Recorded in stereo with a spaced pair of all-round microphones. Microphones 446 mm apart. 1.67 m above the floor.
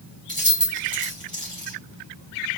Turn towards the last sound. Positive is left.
turn(degrees=-15)  # may be behind; listen again after turning